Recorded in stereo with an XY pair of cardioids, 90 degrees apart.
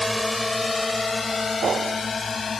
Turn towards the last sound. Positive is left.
turn(degrees=40)